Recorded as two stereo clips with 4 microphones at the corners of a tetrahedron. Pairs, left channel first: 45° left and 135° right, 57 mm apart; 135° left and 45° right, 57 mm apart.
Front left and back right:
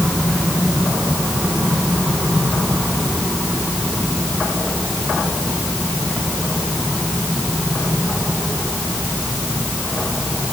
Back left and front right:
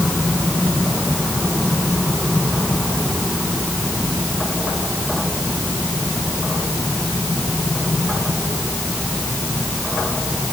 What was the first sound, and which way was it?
Only background noise.